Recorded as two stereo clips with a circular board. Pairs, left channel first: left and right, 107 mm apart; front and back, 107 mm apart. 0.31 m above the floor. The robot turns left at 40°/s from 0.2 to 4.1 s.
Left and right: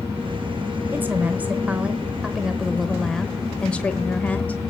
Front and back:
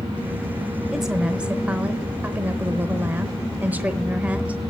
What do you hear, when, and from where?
0.9 s a woman speaking: 100° right, 0.8 m; by 4.6 s 135° left, 0.8 m